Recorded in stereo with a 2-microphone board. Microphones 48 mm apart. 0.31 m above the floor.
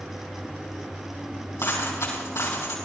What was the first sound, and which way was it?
A dropped coin, 85° left.